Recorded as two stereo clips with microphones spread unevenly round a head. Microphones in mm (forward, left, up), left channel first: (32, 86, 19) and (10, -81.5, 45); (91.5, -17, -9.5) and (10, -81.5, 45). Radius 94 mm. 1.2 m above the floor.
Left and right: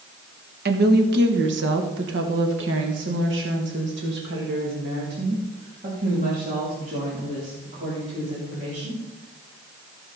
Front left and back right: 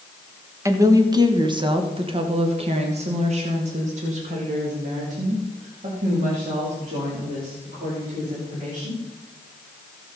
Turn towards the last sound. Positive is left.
turn(degrees=-150)